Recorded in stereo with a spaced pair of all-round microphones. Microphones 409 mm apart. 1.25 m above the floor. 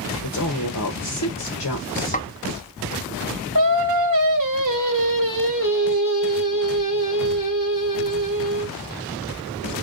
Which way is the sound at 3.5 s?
50° right (ahead or behind).